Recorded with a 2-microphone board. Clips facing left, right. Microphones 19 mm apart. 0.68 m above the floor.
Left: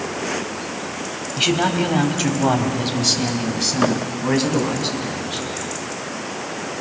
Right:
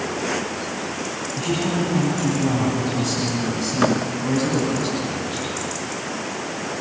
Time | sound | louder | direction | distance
1.4 | a man speaking | left 5 dB | 75° left (ahead or behind) | 3.5 m